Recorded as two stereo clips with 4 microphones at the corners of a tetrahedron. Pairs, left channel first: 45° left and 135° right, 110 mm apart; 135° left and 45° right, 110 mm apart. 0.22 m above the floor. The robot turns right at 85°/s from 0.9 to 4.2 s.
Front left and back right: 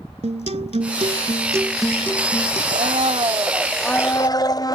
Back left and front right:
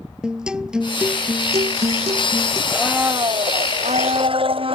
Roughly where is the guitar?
Behind right.